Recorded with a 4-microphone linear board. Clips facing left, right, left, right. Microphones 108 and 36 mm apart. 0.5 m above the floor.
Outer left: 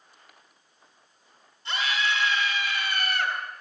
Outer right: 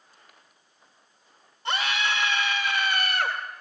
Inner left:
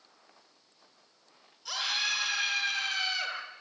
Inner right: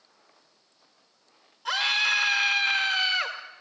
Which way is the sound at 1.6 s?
60° right (ahead or behind).